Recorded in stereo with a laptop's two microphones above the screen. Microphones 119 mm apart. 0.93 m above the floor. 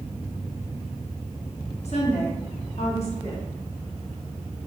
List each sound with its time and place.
1.9 s a woman speaking: 60° left (ahead or behind), 1.2 m; by 3.4 s 50° left (ahead or behind), 1.2 m